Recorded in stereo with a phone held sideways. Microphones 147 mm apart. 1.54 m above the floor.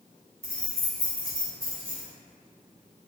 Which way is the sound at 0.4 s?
5° left (ahead or behind).